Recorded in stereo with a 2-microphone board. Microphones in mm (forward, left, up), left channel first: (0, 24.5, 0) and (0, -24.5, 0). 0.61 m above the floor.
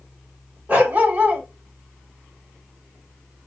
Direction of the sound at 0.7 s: 30° right (ahead or behind).